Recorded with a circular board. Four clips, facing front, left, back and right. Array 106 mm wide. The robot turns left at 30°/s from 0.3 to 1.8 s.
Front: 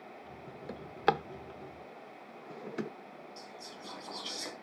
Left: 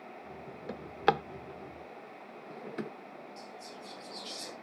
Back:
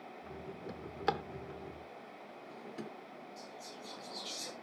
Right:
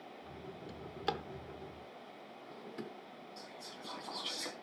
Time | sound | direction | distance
0.7 | a drawer | 75° left | 0.5 m
3.4 | whispering | 50° right | 4 m